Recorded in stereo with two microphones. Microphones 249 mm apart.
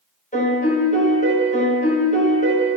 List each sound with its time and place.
0.3 s a piano: 30° left (ahead or behind), 1.1 m